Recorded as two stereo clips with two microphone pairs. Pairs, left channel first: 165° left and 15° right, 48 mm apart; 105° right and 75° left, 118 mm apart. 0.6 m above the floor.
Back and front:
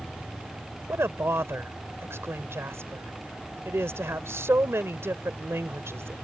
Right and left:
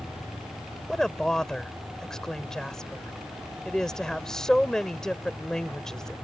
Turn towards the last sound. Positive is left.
turn(degrees=-25)